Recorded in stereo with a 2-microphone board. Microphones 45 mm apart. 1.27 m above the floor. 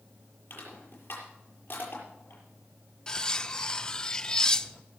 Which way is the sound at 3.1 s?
15° left (ahead or behind).